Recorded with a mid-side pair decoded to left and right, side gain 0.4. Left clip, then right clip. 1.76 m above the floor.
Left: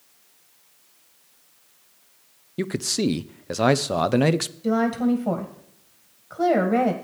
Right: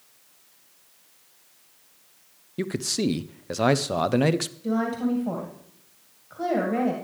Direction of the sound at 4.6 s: 60° left.